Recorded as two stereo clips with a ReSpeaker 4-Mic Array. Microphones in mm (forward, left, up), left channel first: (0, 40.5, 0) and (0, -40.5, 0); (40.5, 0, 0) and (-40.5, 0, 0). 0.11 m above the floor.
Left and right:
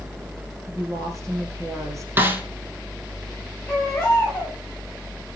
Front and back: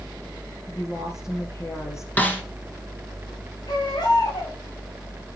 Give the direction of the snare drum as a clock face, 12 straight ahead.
2 o'clock.